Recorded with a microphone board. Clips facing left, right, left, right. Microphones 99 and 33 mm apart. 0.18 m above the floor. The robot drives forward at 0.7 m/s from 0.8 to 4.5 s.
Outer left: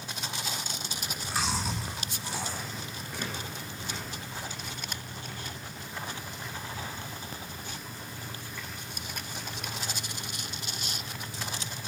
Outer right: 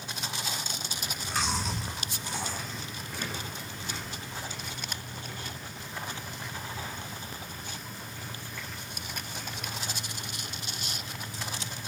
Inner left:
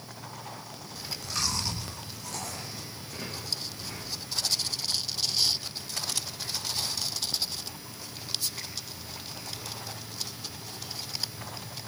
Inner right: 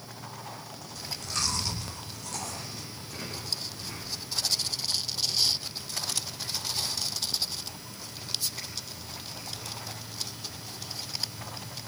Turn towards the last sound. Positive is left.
turn(degrees=5)  # may be behind; listen again after turning